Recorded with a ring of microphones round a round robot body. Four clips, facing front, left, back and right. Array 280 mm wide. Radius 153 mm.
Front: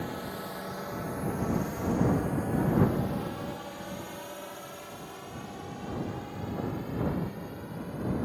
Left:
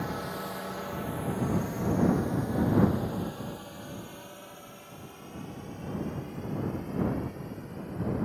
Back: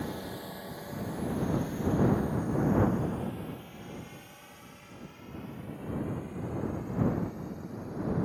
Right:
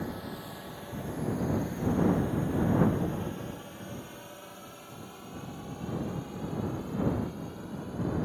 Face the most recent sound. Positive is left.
turn(degrees=-15)